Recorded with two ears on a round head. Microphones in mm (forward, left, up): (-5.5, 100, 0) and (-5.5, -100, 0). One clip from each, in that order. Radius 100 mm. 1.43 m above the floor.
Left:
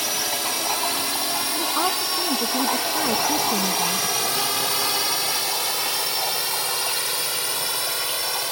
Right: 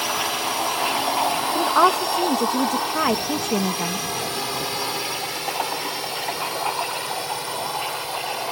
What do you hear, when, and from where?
0.0 s a drone: 30° left (ahead or behind); by 8.5 s 50° left (ahead or behind)
1.6 s a woman speaking: 40° right (ahead or behind)